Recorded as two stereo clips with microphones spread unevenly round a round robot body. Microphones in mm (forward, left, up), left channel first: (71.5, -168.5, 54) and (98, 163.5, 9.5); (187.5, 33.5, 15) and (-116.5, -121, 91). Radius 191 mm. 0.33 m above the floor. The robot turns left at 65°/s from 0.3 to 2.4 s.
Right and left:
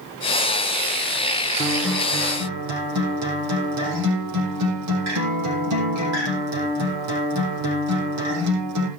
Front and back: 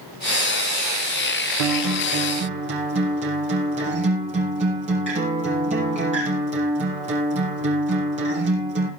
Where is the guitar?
175° right, 5 m; by 8.9 s 135° left, 5 m.